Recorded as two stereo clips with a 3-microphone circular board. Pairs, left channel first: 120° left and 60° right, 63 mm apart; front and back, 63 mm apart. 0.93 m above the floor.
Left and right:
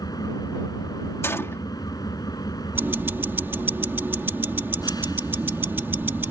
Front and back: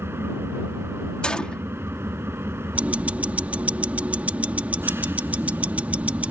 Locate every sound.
0.0 s an engine running: 125° left
1.2 s a gunshot: 75° left
2.8 s ticking: 115° right